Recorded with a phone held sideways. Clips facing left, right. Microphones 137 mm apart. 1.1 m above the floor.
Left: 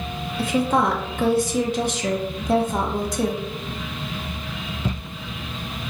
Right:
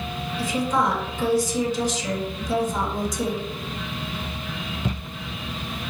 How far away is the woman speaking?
About 0.9 m.